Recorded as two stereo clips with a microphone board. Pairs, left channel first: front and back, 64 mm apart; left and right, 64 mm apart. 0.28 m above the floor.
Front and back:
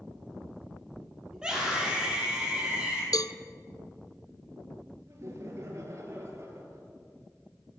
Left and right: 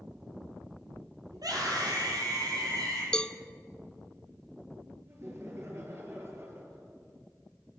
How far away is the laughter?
About 6 m.